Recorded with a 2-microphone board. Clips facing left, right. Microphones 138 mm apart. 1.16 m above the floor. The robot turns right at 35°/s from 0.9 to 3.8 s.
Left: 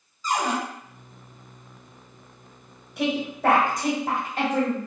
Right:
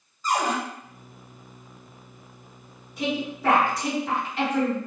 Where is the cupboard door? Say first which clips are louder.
Right 1 dB; 60° right (ahead or behind), 1.5 m.